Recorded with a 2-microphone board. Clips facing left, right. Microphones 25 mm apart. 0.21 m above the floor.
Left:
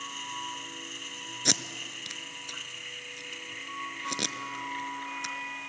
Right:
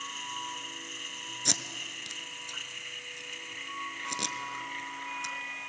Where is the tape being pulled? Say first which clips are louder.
Left 3 dB; 20° left (ahead or behind), 0.6 m.